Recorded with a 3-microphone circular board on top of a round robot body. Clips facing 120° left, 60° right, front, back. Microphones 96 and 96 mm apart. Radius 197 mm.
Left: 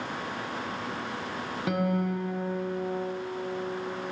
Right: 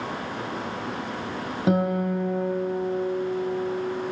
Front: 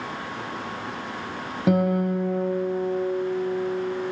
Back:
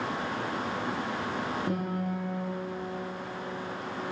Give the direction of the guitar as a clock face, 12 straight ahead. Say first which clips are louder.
Right 5 dB, front 10 dB; 12 o'clock.